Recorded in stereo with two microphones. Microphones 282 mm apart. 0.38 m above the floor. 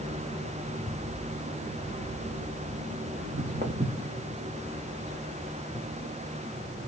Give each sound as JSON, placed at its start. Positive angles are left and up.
{"t": 3.2, "sound": "footsteps", "side_deg": -40, "distance_m": 1.1}